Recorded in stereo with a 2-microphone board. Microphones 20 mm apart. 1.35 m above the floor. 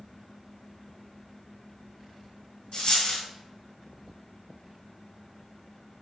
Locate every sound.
2.7 s a dropped coin: 45° left (ahead or behind), 2 m